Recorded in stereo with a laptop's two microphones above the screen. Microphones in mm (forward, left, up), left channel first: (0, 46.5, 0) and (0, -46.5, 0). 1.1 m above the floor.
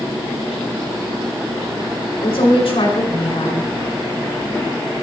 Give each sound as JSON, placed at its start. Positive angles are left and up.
{"t": 2.2, "sound": "a woman speaking", "side_deg": 85, "distance_m": 4.0}